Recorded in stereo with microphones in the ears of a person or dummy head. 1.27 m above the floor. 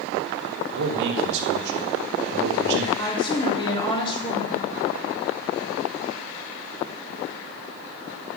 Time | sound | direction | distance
0.7 | a man speaking | 65° right (ahead or behind) | 3 m
3.0 | a woman speaking | 25° left (ahead or behind) | 4 m